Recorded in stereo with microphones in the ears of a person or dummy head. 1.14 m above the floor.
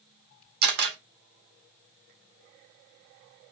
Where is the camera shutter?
55° right (ahead or behind), 1.0 m.